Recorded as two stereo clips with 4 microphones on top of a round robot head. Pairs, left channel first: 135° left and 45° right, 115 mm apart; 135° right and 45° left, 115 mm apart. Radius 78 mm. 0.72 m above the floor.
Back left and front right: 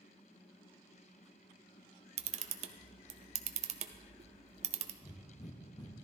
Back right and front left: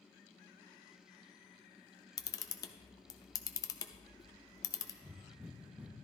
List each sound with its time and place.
2.2 s a camera shutter: 75° right, 0.7 m
5.0 s breathing: 115° left, 0.8 m